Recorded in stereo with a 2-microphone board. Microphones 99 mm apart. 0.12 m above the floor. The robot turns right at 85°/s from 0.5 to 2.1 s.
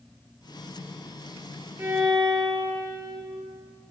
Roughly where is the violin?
Right.